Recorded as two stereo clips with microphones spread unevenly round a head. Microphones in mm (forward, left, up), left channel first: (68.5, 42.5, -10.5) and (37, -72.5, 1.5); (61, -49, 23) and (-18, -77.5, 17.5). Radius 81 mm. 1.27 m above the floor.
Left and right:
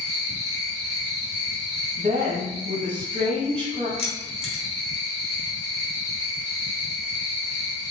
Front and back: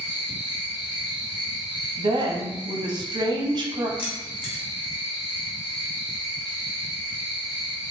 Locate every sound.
0.0 s an insect: 125° left, 1.3 m
2.0 s a woman speaking: 160° right, 0.7 m
4.0 s keys jangling: 35° left, 1.0 m